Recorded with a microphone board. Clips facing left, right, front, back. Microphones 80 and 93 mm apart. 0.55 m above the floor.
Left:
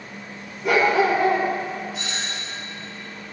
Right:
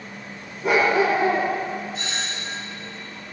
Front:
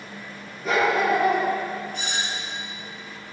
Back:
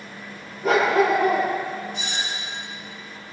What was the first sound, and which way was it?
A dog barking, 145° right.